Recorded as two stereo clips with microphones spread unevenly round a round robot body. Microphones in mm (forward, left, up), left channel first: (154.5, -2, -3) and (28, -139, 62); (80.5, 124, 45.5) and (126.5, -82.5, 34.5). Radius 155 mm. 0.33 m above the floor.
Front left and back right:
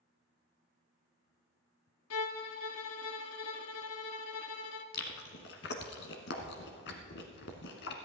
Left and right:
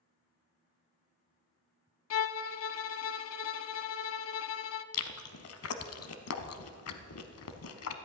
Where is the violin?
85° left, 0.5 m.